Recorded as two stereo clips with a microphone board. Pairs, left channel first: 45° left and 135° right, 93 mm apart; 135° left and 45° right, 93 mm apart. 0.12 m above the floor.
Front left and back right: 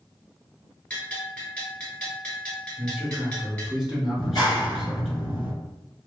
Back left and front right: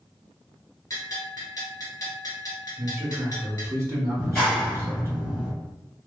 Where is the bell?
115° left, 1.2 m.